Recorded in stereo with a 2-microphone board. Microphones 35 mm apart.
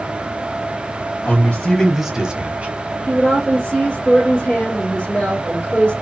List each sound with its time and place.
1.2 s a man speaking: 45° left (ahead or behind), 1.2 m; by 2.8 s 50° right (ahead or behind), 1.3 m
3.1 s a woman speaking: 30° left (ahead or behind), 1.9 m